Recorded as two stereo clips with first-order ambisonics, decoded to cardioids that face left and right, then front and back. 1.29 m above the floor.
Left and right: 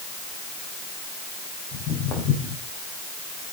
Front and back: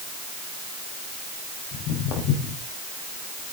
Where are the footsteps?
40° left, 7.5 m.